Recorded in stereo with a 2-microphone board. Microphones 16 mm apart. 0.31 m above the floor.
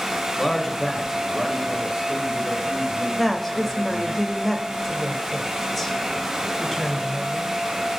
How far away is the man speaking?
About 1.3 m.